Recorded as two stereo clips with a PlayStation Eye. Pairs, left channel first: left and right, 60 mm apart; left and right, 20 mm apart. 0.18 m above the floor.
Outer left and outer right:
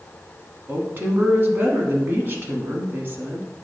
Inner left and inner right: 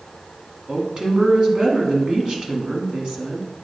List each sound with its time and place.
0.7 s a woman speaking: 35° right (ahead or behind), 1.2 m